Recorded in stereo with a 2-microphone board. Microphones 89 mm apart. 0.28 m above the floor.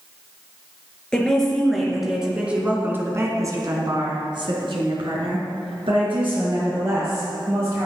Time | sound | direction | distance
1.1 | a woman speaking | 10° left (ahead or behind) | 4 m